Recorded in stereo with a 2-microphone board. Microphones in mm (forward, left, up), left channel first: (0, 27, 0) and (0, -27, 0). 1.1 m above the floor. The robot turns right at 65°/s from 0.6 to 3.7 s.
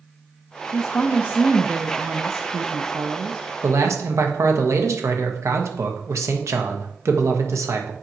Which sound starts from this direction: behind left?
A woman speaking, at 0.7 s.